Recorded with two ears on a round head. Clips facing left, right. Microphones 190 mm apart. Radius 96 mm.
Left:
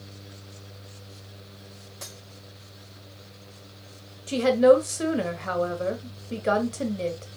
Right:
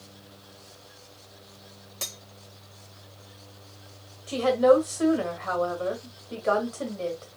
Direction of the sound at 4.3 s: 30° left (ahead or behind).